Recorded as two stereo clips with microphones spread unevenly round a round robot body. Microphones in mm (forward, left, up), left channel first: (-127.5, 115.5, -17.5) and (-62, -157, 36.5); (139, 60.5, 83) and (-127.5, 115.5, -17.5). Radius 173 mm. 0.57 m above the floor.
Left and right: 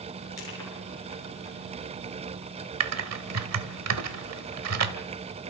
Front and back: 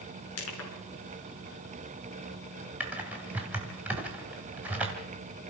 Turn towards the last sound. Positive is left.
turn(degrees=-110)